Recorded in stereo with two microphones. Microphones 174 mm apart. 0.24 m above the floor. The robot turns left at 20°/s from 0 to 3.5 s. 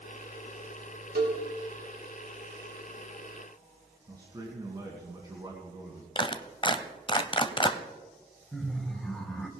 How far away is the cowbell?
About 4.5 m.